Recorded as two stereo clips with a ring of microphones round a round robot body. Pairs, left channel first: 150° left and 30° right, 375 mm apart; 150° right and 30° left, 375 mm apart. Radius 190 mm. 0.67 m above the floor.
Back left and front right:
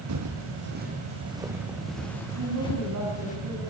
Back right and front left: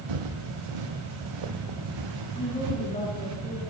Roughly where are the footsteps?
Ahead.